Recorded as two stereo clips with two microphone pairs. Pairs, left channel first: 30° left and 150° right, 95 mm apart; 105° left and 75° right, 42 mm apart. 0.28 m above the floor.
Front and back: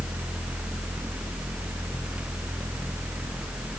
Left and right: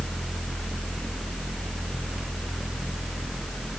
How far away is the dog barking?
No dog barking in this recording.